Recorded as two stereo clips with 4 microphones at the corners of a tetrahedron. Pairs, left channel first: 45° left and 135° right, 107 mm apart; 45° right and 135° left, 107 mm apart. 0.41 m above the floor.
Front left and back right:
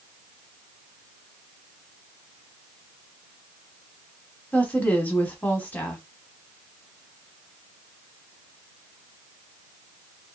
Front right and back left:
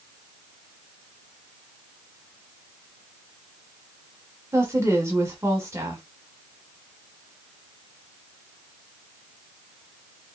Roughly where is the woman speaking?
Left.